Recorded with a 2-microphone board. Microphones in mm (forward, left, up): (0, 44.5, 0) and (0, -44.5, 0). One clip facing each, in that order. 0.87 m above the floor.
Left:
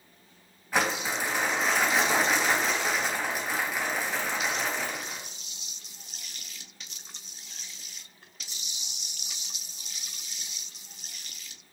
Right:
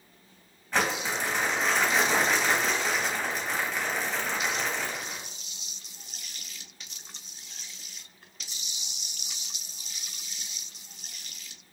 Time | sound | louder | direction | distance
0.7 | crumpling | even | 5° left (ahead or behind) | 3.5 m